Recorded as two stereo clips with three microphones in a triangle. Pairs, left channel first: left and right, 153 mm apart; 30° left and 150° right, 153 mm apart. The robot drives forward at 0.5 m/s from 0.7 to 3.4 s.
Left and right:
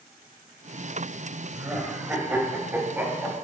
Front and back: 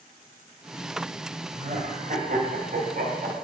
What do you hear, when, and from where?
1.5 s laughter: 165° right, 1.6 m; by 3.5 s 170° right, 2.5 m